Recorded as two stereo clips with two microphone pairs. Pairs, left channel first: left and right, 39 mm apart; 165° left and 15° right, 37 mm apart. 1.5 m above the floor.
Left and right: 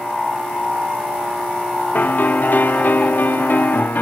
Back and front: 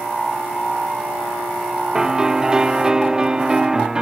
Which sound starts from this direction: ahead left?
A piano, at 1.9 s.